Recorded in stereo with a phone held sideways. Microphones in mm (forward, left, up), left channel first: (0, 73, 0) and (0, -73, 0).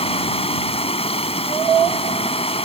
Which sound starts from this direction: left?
Running water, at 0.0 s.